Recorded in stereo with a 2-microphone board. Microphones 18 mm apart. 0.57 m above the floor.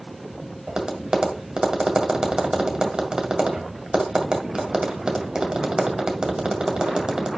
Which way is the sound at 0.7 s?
60° right (ahead or behind).